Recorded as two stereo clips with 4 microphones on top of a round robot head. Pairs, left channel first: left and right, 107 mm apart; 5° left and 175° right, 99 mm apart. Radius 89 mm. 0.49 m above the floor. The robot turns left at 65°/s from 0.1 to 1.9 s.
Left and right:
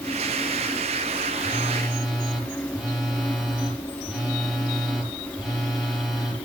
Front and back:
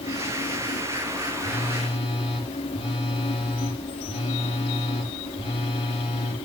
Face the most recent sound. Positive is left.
turn(degrees=0)